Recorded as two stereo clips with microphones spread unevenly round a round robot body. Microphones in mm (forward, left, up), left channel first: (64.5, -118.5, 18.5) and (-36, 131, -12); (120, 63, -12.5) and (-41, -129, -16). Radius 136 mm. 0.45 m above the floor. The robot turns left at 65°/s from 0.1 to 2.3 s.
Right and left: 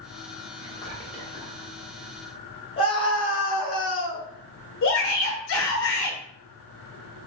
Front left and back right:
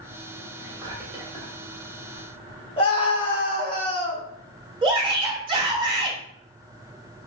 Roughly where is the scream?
Ahead.